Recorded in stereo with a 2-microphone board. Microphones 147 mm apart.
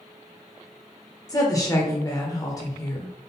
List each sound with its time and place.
1.3 s a woman speaking: 25° left (ahead or behind), 1.0 m